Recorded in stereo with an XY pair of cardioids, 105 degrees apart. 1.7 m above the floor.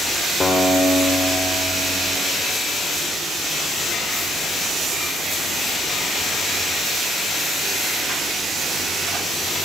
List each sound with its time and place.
0.4 s a guitar: 30° left, 4 m